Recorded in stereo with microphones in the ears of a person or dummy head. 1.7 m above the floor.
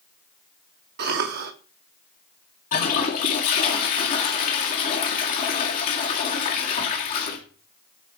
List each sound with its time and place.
1.0 s a cough: 45° right (ahead or behind), 1.0 m
2.7 s a toilet flushing: 40° left (ahead or behind), 2 m